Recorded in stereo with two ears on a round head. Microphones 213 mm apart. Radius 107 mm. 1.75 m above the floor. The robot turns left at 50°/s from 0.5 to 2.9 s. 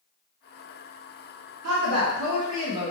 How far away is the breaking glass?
No breaking glass in this recording.